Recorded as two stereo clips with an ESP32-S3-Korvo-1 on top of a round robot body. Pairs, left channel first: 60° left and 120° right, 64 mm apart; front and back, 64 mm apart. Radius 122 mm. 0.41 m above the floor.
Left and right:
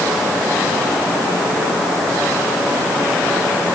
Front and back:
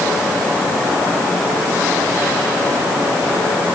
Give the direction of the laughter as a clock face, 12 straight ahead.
I don't hear laughter.